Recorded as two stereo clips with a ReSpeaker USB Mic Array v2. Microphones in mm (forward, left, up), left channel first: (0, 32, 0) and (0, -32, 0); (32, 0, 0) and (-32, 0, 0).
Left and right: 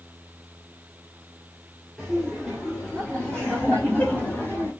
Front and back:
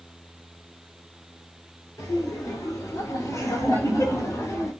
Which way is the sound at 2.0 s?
Straight ahead.